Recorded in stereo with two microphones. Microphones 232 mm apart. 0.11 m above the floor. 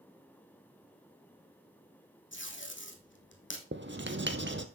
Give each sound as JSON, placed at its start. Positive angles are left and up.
{"t": 2.3, "sound": "tape being pulled", "side_deg": 55, "distance_m": 2.0}
{"t": 3.7, "sound": "writing", "side_deg": -55, "distance_m": 1.2}